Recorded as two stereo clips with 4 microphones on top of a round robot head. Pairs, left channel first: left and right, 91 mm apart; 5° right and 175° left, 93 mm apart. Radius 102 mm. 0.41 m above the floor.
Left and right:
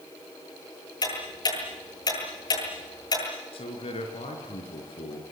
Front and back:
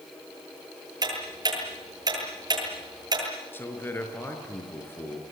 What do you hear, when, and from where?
1.0 s ticking: 130° left, 9 m
3.5 s a man speaking: 65° left, 6 m